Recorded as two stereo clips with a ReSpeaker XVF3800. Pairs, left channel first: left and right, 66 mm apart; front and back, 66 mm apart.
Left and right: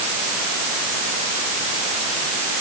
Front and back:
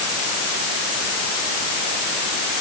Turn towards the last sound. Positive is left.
No sound to turn to.